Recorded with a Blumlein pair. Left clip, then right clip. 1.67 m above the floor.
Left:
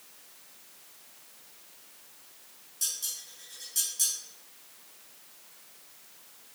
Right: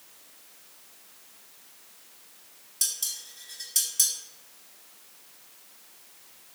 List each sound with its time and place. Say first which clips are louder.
2.8 s dishes clattering: right 3 dB; 65° right, 2.0 m